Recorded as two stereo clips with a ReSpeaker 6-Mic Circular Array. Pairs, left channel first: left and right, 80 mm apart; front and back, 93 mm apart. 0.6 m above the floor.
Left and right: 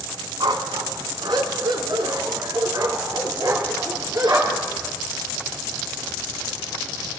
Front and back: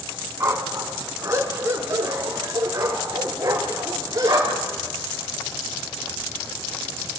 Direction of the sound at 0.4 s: 115° right.